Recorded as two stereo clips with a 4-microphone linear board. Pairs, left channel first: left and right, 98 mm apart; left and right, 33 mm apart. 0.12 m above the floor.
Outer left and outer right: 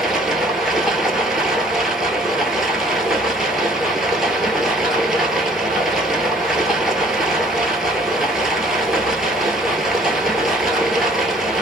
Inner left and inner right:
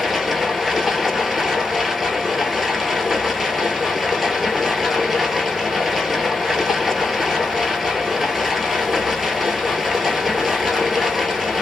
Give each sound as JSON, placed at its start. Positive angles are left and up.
{"t": 0.0, "sound": "running water", "side_deg": -5, "distance_m": 0.8}